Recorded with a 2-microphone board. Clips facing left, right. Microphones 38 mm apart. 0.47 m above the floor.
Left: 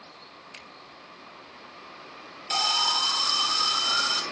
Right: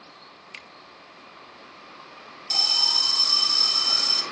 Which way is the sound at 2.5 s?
35° left (ahead or behind).